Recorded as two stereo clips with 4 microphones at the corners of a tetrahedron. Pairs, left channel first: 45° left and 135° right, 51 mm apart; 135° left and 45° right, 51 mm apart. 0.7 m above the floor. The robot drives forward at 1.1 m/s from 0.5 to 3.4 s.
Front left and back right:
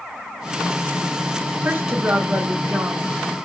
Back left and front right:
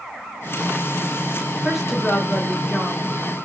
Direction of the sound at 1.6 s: 110° right.